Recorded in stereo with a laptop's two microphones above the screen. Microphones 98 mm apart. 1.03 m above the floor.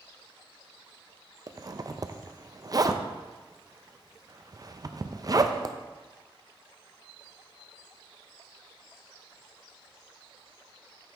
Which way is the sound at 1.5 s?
40° right (ahead or behind).